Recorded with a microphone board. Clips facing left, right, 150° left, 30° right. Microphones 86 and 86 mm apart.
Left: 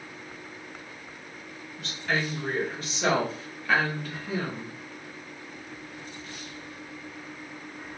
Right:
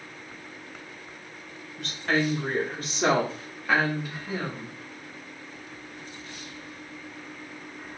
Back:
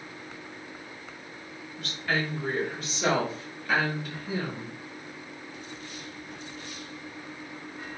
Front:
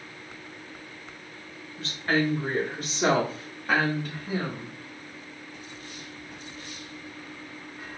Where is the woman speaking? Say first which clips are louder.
Right 4 dB, front 4 dB; 90° right, 1.7 m; by 4.8 s straight ahead, 1.7 m.